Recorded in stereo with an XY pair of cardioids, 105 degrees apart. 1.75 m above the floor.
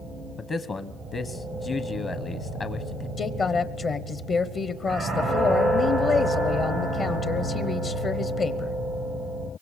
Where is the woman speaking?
50° left, 0.9 m.